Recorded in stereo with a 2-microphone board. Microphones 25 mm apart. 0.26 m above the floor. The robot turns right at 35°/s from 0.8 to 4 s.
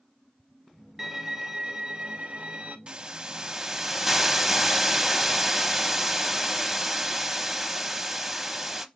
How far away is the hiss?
About 0.6 m.